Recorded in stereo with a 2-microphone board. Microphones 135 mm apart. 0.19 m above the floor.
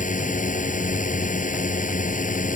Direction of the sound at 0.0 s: 65° left (ahead or behind).